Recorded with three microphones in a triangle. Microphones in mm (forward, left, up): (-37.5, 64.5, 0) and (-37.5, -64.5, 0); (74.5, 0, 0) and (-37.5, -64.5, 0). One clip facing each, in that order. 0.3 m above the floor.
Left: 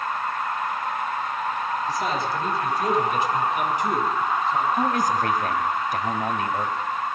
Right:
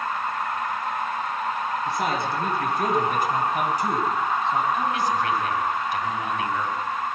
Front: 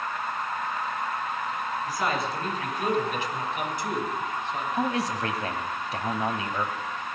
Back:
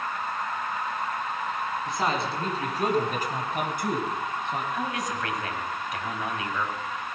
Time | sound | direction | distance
1.9 | a man speaking | 85° right | 3.5 m
4.7 | a man speaking | 75° left | 1.6 m